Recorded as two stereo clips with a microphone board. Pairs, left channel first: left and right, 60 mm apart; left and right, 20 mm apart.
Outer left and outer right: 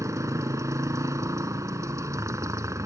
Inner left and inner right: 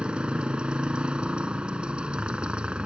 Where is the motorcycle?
70° right (ahead or behind).